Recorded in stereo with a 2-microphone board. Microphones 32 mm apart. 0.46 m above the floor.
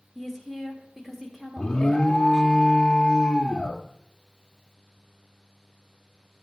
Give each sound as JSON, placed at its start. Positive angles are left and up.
{"t": 0.1, "sound": "a woman speaking", "side_deg": -10, "distance_m": 1.4}
{"t": 1.6, "sound": "an alarm", "side_deg": 25, "distance_m": 0.6}